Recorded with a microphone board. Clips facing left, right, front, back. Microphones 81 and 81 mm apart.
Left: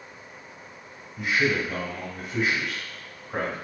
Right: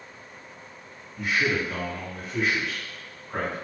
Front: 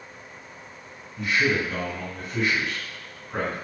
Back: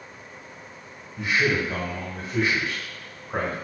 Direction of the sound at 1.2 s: 165° left.